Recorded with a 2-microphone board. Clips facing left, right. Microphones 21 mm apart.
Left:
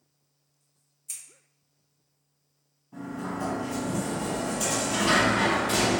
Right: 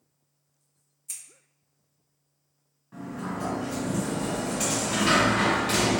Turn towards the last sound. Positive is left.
turn(degrees=-60)  # may be behind; listen again after turning